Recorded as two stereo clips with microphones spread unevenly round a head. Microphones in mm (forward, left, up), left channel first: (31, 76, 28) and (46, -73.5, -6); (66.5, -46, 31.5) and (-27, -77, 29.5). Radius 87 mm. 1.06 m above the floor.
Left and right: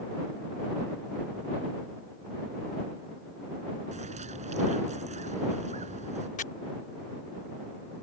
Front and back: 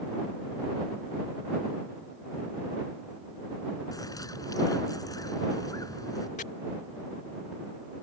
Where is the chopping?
60° left.